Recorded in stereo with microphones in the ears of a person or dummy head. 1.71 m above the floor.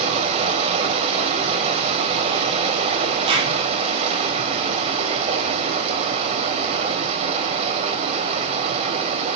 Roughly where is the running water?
Right.